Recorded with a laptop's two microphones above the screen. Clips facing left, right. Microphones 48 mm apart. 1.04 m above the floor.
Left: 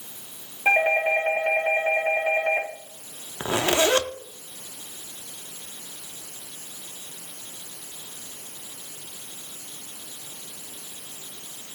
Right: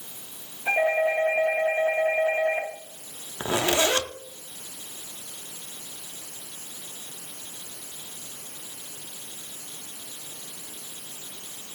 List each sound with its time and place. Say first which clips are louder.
0.7 s a doorbell: left 2 dB; 70° left (ahead or behind), 6 m
3.4 s a zipper: left 2 dB; 25° left (ahead or behind), 0.6 m